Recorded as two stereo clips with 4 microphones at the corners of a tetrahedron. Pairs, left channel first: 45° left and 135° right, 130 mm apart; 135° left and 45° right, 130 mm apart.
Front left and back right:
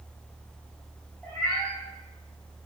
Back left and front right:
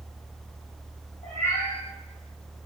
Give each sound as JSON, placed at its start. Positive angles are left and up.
{"t": 1.2, "sound": "a cat meowing", "azimuth_deg": 135, "distance_m": 1.9}